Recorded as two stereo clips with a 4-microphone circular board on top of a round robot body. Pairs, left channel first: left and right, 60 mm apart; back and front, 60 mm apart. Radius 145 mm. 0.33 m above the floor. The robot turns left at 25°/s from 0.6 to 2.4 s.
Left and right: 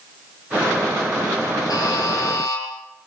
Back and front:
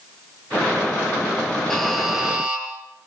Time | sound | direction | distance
1.7 | a buzzer | 95° left | 6.5 m